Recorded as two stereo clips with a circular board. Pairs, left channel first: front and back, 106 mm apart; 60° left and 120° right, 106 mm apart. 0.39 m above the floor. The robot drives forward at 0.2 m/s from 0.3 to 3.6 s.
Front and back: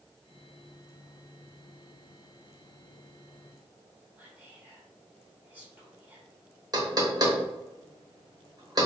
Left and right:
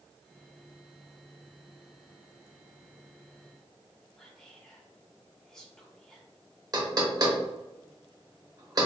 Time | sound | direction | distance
4.2 | whispering | 135° left | 1.3 m
6.7 | knocking | 150° right | 0.9 m